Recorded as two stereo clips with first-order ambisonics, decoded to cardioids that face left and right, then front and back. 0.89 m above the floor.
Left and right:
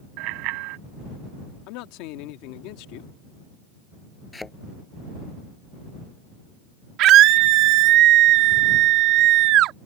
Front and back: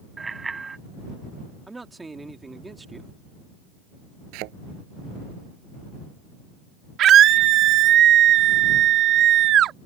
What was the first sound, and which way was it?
A bicycle bell, 105° right.